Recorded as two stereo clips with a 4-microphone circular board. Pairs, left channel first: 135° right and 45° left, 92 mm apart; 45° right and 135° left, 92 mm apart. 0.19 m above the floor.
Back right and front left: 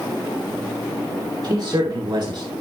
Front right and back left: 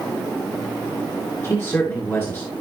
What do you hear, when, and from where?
1.4 s a man speaking: 15° left, 3.5 m; by 2.5 s 20° left, 3 m